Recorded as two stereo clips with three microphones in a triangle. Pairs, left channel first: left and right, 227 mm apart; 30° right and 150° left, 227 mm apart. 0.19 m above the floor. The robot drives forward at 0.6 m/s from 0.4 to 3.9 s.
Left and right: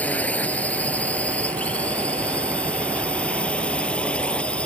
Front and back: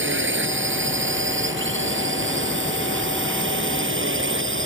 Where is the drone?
175° left.